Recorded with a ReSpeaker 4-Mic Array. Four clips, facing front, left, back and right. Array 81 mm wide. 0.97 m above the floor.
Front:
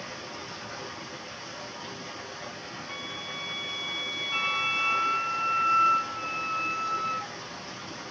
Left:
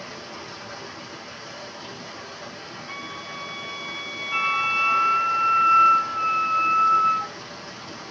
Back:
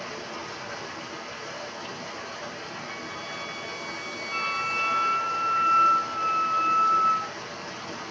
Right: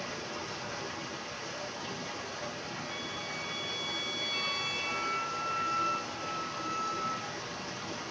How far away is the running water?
About 5.5 m.